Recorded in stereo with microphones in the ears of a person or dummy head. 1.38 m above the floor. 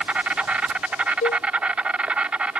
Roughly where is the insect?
Centre.